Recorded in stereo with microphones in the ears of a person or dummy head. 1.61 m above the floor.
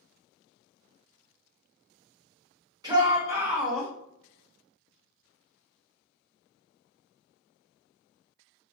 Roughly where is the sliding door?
No sliding door in this recording.